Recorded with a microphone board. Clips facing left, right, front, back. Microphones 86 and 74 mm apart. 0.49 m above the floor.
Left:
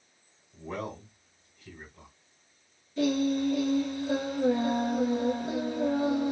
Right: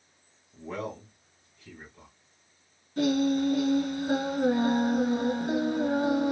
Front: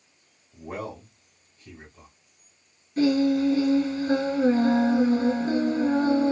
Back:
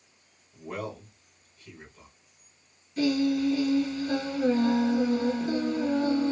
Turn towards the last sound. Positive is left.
turn(degrees=-55)